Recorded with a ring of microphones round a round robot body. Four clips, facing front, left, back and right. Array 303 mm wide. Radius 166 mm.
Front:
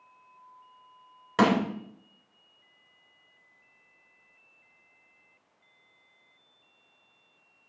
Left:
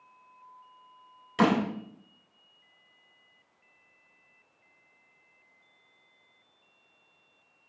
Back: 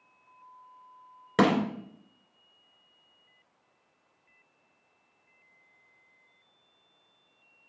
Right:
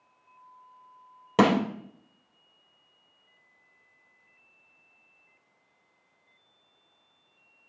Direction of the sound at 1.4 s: 120° right.